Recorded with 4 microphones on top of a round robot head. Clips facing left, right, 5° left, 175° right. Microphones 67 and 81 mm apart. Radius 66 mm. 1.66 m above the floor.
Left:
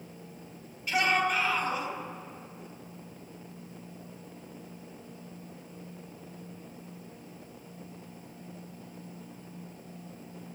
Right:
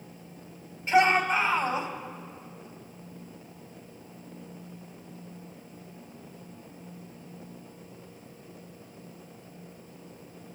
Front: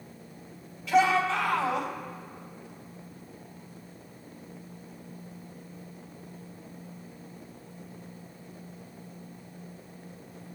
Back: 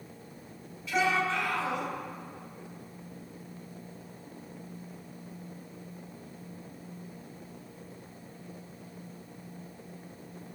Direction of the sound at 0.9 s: 30° right.